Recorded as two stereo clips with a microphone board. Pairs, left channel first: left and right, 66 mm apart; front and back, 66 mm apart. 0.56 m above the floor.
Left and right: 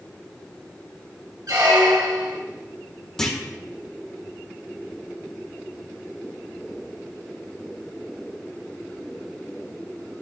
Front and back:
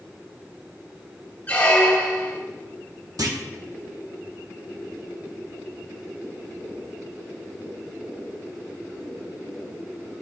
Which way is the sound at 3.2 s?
170° left.